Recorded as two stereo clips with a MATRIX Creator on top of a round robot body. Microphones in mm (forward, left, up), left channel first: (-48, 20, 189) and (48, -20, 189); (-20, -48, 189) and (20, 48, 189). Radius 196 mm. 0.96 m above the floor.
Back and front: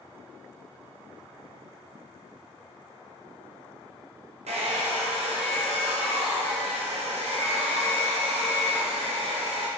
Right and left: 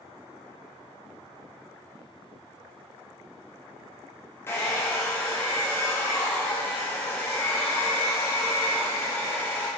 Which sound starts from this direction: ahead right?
A hair dryer, at 4.5 s.